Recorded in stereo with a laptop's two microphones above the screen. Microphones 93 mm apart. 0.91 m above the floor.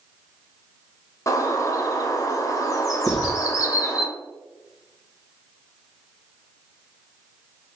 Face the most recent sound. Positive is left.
turn(degrees=15)  # may be behind; listen again after turning